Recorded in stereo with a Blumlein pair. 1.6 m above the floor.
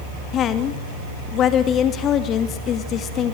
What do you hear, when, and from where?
0.3 s a woman speaking: 30° left, 2.5 m